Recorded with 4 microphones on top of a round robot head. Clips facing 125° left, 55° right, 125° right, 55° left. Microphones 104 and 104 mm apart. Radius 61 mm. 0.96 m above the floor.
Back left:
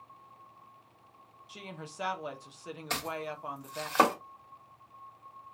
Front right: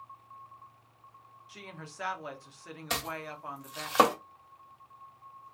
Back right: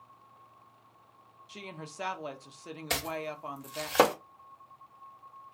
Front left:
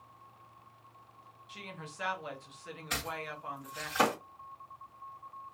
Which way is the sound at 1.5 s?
170° right.